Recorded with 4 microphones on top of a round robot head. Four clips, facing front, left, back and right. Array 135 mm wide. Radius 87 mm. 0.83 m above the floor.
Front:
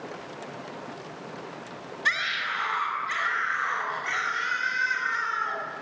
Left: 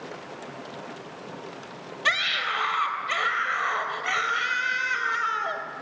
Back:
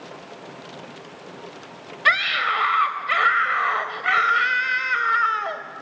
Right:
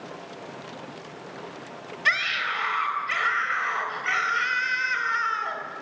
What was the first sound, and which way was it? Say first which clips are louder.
A scream: even, back 8 dB; 160° left.